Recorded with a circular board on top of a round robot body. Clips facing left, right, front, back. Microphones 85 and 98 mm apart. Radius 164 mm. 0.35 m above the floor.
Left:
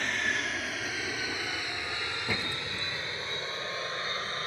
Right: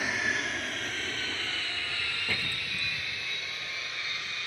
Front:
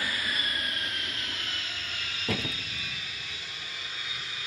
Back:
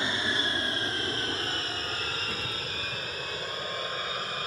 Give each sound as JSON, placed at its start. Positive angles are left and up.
{"t": 0.0, "sound": "an aircraft", "azimuth_deg": -165}
{"t": 2.3, "sound": "a door slam", "azimuth_deg": 15}